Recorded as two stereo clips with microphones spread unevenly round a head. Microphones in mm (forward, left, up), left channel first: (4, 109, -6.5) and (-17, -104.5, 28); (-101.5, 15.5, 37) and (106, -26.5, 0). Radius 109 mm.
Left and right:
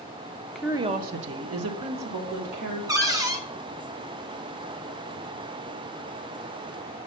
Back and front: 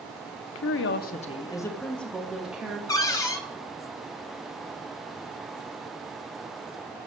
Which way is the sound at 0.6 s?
165° left.